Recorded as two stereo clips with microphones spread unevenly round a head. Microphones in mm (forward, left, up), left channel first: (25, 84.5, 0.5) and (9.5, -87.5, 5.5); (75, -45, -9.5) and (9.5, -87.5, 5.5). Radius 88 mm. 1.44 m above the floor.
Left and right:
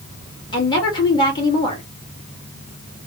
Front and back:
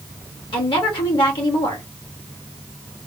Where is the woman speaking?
20° left, 1.8 m.